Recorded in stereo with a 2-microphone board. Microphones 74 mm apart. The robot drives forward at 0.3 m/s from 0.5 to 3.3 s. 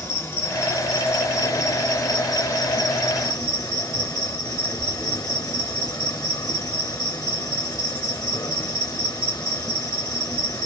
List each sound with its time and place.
0.0 s an insect: 40° left (ahead or behind), 1.2 m; by 10.7 s 60° left (ahead or behind), 0.9 m